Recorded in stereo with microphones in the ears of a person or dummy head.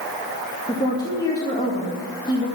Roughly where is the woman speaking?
Left.